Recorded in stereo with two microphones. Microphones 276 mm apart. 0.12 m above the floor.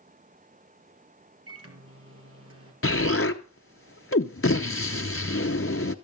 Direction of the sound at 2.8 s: 50° left (ahead or behind).